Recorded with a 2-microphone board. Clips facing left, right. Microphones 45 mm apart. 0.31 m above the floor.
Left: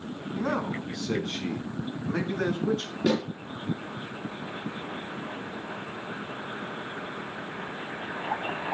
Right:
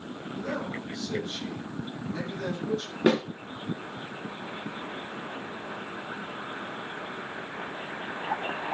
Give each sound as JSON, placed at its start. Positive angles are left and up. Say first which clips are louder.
{"t": 0.3, "sound": "a man speaking", "louder": "left 4 dB", "side_deg": 60, "distance_m": 3.0}
{"t": 3.1, "sound": "a snare drum", "louder": "right 3 dB", "side_deg": -35, "distance_m": 3.5}